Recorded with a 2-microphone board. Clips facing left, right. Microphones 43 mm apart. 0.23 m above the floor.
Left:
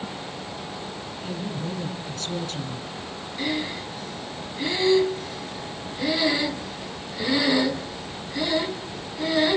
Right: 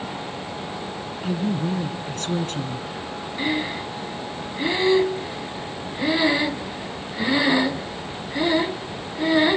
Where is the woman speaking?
50° right (ahead or behind), 2 m.